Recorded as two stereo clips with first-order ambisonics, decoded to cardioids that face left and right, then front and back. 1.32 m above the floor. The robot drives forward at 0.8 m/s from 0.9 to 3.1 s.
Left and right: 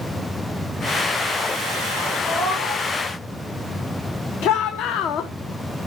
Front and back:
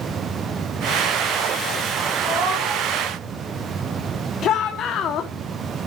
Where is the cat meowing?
Straight behind, 3.5 m.